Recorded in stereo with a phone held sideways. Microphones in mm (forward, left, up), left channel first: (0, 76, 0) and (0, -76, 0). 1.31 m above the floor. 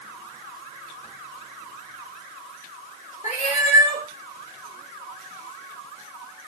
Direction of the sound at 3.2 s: 50° left (ahead or behind).